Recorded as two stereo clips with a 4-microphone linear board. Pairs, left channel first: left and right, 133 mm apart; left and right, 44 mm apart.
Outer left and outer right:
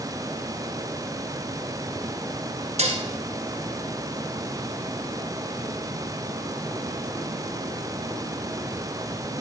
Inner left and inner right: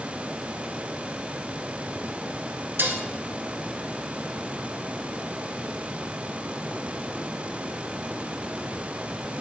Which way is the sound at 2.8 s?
55° right (ahead or behind).